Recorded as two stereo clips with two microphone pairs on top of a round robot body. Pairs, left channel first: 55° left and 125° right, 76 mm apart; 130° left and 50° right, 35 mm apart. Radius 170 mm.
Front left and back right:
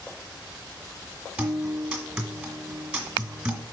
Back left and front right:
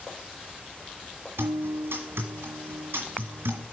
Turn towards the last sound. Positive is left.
turn(degrees=-50)